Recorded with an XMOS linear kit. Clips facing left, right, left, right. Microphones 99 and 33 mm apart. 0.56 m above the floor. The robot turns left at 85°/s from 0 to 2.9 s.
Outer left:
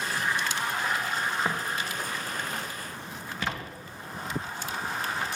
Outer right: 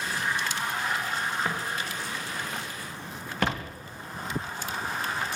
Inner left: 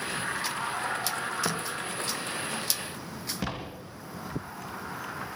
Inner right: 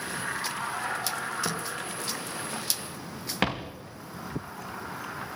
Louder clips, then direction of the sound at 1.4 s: Outer left 1 dB, inner left 1 dB; 15° left (ahead or behind).